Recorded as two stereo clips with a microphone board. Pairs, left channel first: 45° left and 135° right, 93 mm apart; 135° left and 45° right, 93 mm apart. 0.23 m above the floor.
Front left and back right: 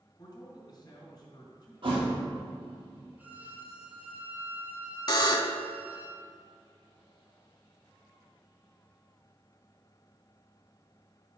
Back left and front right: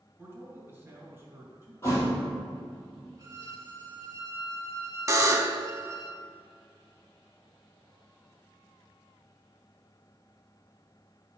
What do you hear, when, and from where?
0.2 s a man speaking: 15° left, 2 m
1.8 s a thud: 165° right, 3 m
3.2 s a violin: 75° right, 1.2 m
5.1 s a buzzer: 5° left, 0.5 m